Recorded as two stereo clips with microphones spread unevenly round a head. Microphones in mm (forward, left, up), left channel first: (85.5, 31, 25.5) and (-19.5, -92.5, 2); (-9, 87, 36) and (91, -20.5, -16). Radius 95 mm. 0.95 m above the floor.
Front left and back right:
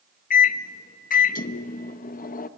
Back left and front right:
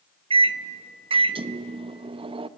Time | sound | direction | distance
0.3 | a microwave | 5° left | 0.6 m